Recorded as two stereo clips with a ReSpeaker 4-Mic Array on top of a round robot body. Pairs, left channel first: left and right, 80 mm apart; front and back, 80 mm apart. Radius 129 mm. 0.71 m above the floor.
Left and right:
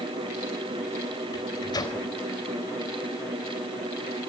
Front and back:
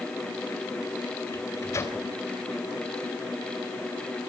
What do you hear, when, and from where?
1.3 s a microwave: 55° left, 4 m